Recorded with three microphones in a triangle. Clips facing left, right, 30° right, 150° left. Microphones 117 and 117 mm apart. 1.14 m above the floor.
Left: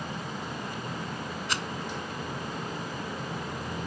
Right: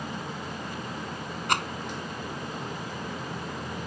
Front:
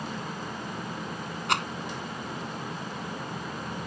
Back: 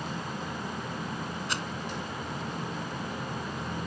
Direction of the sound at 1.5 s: 55° right.